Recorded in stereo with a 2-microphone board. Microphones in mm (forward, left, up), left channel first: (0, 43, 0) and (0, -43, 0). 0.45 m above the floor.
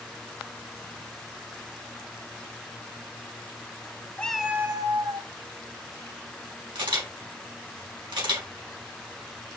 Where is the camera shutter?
65° right (ahead or behind), 3.5 m.